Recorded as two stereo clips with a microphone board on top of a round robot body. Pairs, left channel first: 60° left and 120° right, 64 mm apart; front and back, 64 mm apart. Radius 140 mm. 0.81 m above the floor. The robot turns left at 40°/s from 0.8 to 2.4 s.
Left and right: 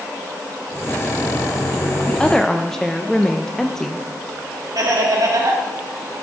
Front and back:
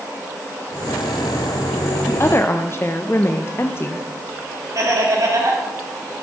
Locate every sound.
2.1 s a woman speaking: 5° right, 0.8 m; by 4.1 s 20° right, 0.8 m
4.8 s laughter: 145° right, 3 m